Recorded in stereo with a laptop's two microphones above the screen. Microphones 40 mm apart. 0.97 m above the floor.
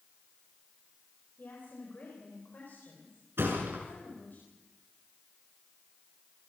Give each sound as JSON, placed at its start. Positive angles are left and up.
{"t": 1.4, "sound": "a woman speaking", "side_deg": 55, "distance_m": 4.0}
{"t": 3.4, "sound": "a thud", "side_deg": -70, "distance_m": 7.0}